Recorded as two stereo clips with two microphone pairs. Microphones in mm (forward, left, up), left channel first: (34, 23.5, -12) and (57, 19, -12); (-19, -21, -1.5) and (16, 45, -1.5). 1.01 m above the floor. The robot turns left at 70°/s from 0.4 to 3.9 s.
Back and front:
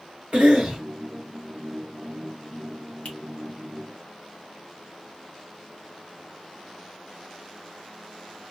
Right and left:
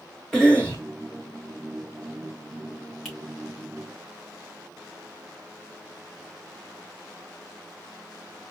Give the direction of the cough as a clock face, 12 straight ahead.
1 o'clock.